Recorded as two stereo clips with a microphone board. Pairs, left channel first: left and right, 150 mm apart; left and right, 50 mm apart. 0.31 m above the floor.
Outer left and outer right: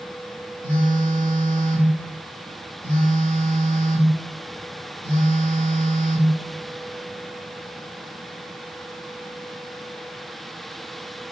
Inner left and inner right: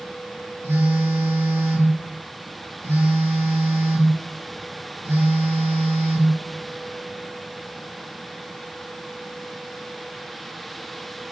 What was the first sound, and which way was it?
A phone buzzing, 75° right (ahead or behind).